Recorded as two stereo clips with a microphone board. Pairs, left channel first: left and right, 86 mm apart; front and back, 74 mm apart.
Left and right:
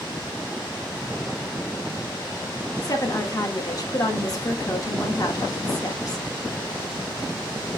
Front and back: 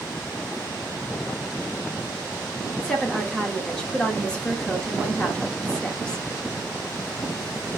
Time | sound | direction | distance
2.8 | a woman speaking | 70° left | 1.1 m